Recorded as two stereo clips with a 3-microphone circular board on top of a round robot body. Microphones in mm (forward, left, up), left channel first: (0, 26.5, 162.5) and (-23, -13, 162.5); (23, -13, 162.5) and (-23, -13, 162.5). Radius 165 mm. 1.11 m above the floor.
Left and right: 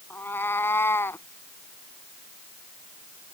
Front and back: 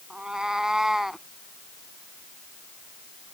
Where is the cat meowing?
105° left; by 1.3 s 95° left.